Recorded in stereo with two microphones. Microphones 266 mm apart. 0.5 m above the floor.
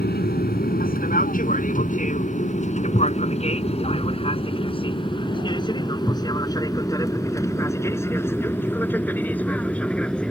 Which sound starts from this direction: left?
An aircraft, at 0.0 s.